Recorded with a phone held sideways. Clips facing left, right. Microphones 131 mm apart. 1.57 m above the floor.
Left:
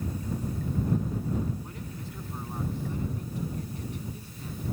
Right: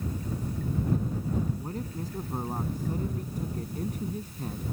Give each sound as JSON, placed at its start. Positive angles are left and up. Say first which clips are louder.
{"t": 1.6, "sound": "a man speaking", "louder": "right 5 dB", "side_deg": -40}